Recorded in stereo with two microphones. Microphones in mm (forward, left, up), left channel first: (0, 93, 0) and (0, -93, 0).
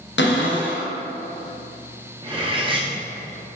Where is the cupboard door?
80° left, 0.6 m.